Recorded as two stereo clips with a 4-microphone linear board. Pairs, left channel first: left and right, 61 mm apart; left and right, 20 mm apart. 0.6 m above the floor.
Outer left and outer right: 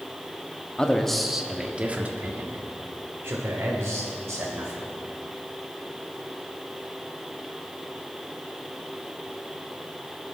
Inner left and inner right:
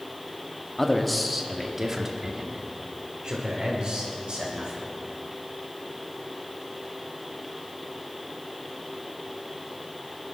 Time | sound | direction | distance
0.8 | a man speaking | 15° left (ahead or behind) | 1.2 m